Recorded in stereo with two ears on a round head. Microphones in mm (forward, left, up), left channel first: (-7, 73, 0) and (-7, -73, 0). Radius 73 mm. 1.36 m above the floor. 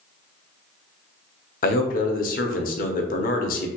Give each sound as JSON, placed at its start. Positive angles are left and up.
{"t": 1.6, "sound": "a man speaking", "side_deg": 55, "distance_m": 0.7}